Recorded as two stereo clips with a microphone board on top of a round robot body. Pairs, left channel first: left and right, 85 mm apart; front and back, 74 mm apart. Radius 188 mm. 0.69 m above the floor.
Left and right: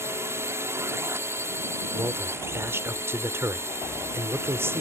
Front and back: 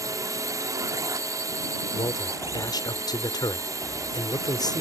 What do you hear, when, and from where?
0.0 s a drone: 145° right
1.9 s a man speaking: 30° right